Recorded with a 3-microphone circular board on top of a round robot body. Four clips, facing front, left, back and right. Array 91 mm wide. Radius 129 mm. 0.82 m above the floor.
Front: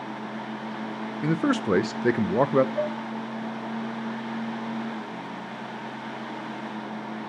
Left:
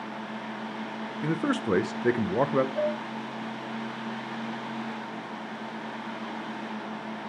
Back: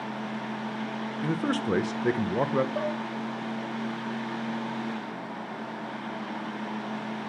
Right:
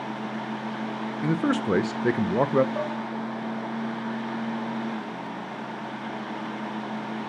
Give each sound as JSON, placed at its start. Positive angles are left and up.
{"t": 1.2, "sound": "a man speaking", "azimuth_deg": -10, "distance_m": 0.8}
{"t": 2.8, "sound": "dishes clattering", "azimuth_deg": -125, "distance_m": 7.0}